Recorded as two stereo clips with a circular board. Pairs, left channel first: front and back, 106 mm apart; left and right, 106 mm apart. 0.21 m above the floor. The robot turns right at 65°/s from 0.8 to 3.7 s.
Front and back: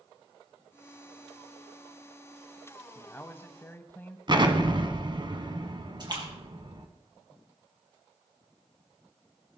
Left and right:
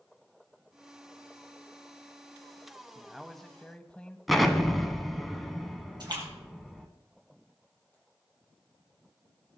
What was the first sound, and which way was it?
A man speaking, 20° right.